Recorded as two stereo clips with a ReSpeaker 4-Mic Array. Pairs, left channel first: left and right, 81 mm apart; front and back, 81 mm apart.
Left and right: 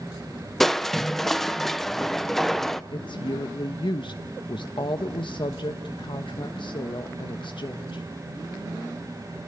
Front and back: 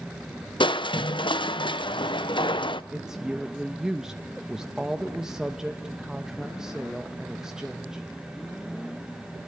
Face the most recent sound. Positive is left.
turn(degrees=100)